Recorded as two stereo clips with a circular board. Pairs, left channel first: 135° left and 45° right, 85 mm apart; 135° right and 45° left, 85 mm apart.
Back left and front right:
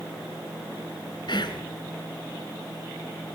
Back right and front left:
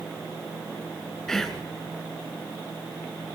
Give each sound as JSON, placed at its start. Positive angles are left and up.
{"t": 1.3, "sound": "whispering", "azimuth_deg": 140, "distance_m": 2.5}